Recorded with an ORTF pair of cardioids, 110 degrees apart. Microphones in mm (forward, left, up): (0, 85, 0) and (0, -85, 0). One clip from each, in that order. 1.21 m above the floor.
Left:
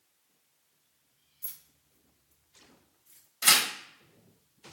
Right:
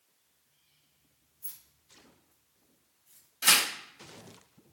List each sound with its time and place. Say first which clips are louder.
1.4 s keys jangling: left 2 dB; 45° left, 0.9 m; by 3.3 s 70° left, 2.5 m
3.4 s tearing paper: left 1 dB; 20° left, 1.2 m